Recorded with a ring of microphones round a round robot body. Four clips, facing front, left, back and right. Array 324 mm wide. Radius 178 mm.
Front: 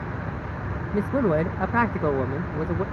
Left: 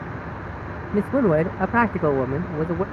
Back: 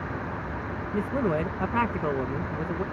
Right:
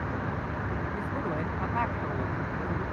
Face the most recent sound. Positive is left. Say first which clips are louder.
# left 18 dB, front 4 dB
turn(degrees=75)